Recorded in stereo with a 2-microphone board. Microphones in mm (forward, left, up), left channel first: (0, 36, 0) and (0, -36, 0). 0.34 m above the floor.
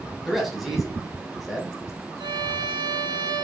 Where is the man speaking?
Centre (ahead or behind), 1.4 m.